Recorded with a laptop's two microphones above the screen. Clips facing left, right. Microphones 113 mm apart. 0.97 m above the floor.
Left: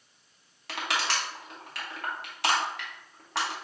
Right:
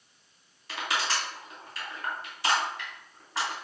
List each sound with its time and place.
0.7 s crushing: 70° left (ahead or behind), 1.3 m